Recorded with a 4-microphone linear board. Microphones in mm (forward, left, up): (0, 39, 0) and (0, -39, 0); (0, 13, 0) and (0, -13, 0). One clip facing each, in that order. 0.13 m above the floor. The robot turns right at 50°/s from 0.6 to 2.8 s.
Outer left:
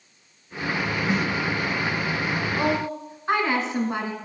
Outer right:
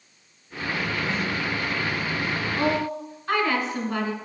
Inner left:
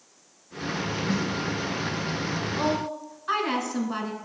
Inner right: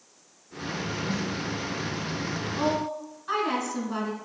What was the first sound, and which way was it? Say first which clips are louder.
A snare drum: outer left 3 dB, inner left 4 dB; 80° left.